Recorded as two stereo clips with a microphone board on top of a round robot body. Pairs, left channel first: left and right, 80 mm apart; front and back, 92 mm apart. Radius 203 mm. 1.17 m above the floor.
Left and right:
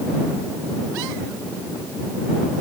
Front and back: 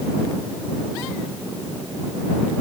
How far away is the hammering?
No hammering in this recording.